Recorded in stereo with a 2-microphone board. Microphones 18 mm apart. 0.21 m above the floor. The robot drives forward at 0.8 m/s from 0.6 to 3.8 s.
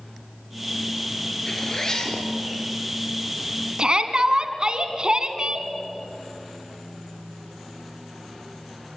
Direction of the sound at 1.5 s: 30° left (ahead or behind).